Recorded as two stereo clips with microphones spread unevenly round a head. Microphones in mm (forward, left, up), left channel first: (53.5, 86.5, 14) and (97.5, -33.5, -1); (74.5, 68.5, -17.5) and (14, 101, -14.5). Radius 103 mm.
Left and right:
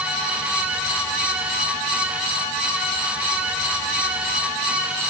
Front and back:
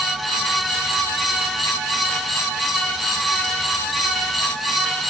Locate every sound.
Only background noise.